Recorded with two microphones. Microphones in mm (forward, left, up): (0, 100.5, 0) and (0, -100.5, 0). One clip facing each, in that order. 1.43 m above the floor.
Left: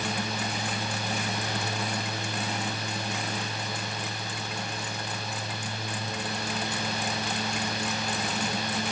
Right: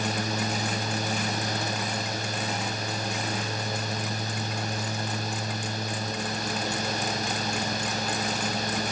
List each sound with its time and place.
Only background noise.